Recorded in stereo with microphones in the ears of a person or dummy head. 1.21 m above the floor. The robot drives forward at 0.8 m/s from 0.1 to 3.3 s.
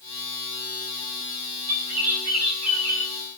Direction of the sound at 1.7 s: 85° right.